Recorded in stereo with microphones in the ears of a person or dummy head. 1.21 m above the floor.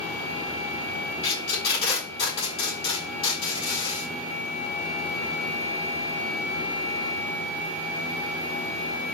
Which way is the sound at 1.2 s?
35° left (ahead or behind).